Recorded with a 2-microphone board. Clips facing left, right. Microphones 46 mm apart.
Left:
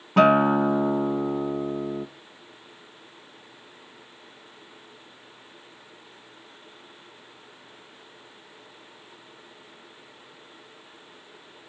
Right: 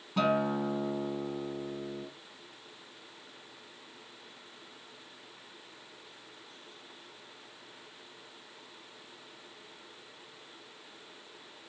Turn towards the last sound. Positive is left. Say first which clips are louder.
# left 11 dB
turn(degrees=55)  # may be behind; listen again after turning